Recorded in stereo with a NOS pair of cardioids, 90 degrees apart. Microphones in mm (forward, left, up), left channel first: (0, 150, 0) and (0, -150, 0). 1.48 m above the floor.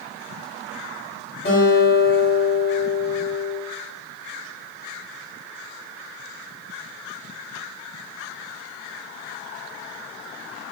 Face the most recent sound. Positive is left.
turn(degrees=35)